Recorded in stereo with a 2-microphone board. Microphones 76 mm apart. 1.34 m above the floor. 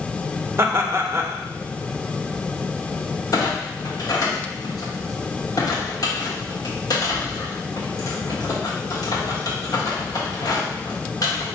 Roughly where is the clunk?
Left.